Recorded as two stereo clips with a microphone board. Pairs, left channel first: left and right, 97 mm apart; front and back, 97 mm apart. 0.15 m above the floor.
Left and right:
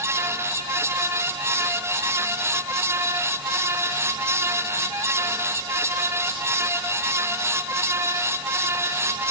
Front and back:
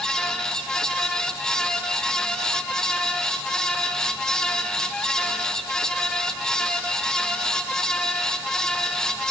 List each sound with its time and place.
Only background noise.